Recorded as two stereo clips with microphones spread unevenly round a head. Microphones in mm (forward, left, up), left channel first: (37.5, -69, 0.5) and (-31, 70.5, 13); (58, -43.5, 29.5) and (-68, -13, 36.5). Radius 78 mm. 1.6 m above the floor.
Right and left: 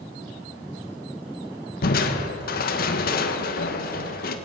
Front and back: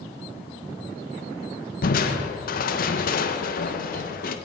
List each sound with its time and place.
1.8 s crushing: 30° right, 1.3 m